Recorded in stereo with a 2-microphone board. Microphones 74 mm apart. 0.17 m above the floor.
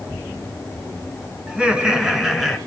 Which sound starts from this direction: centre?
Laughter, at 1.5 s.